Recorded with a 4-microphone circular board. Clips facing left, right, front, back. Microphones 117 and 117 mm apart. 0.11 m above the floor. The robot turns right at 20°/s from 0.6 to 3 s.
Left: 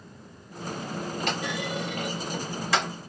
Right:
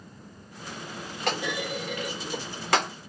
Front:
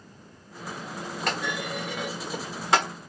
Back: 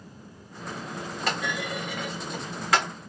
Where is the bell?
I don't hear a bell.